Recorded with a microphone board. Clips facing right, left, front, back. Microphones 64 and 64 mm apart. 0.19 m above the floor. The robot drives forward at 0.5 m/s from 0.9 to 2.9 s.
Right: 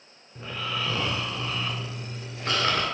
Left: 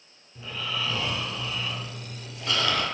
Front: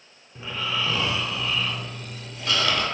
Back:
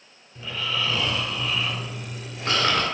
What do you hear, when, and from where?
0.3 s snoring: 55° right, 0.6 m; by 2.8 s 145° right, 0.8 m